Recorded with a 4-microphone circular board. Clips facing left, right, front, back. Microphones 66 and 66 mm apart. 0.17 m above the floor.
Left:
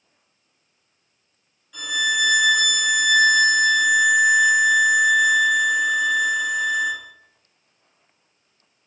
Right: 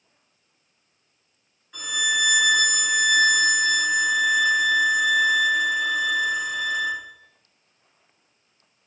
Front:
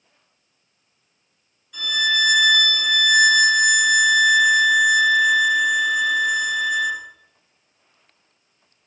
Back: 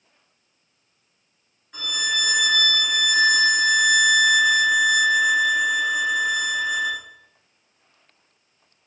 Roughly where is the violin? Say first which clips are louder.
Left 2 dB, front 5 dB; behind right.